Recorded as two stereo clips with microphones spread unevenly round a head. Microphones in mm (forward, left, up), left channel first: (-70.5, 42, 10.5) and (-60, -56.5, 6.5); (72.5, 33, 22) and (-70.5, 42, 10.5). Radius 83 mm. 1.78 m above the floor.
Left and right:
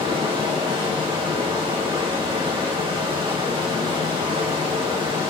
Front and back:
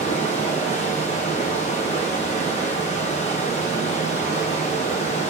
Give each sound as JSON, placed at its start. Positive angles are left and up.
{"t": 0.0, "sound": "running water", "azimuth_deg": -35, "distance_m": 1.2}